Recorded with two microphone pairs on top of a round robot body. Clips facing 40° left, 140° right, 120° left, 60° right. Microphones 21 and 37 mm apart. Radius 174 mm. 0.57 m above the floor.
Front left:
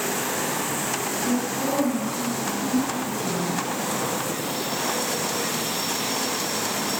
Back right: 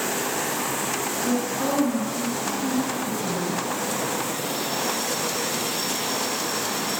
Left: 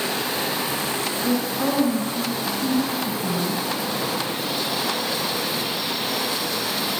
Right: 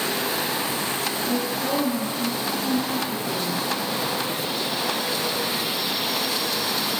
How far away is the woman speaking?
About 8.5 m.